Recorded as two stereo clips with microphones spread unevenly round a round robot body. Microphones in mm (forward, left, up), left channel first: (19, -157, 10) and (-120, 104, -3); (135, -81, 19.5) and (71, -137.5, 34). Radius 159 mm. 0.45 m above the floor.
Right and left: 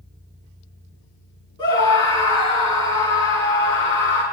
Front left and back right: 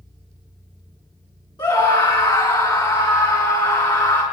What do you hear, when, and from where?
1.6 s a scream: 15° left, 6.5 m